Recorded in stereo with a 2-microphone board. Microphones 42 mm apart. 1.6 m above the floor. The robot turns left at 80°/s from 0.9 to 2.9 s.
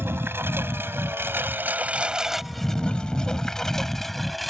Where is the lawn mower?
70° right (ahead or behind); by 4.5 s centre (ahead or behind).